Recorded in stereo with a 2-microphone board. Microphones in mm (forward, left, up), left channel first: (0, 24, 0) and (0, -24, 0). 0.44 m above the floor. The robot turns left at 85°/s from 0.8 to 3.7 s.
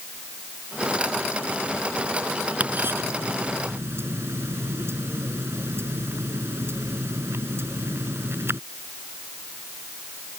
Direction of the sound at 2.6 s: 30° right (ahead or behind).